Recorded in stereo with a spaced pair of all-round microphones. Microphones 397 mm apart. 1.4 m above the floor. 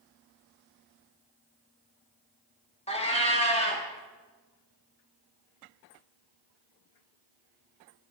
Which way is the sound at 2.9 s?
15° left (ahead or behind).